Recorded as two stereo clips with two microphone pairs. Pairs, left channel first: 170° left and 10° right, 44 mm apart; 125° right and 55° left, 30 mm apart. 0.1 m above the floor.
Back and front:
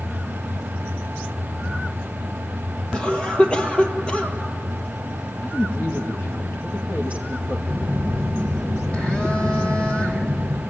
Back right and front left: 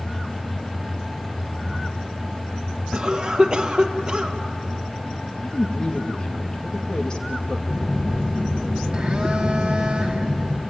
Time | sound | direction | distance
2.9 | a cough | 110° left | 2.5 m
5.4 | a woman speaking | straight behind | 2.5 m
7.7 | a phone buzzing | 110° left | 3 m